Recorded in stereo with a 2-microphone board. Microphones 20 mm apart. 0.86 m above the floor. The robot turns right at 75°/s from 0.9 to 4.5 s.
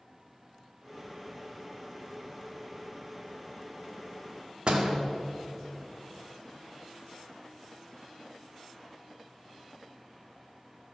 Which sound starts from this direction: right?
A door slam, at 4.7 s.